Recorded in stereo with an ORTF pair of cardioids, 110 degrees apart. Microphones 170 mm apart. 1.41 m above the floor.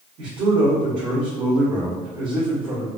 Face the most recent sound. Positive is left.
turn(degrees=-60)